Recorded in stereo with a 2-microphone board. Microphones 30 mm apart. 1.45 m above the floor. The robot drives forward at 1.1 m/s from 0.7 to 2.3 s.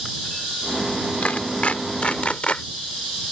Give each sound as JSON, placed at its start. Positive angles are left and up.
{"t": 1.2, "sound": "a clap", "side_deg": 55}